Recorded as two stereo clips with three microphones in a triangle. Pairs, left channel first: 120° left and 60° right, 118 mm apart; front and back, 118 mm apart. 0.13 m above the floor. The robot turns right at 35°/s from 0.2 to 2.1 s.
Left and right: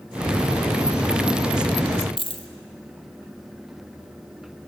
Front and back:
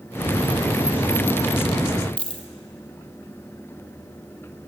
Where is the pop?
I don't hear a pop.